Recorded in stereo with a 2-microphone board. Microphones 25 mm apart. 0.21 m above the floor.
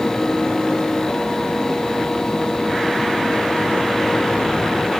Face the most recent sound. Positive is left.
No sound to turn to.